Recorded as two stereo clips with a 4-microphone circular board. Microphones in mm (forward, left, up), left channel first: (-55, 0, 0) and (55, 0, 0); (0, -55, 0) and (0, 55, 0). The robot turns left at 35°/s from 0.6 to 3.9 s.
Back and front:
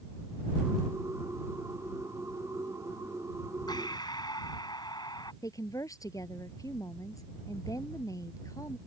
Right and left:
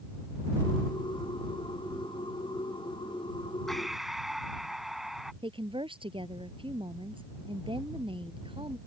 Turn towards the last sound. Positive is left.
turn(degrees=125)